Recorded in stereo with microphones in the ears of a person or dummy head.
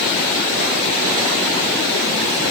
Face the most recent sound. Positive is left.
No sound to turn to.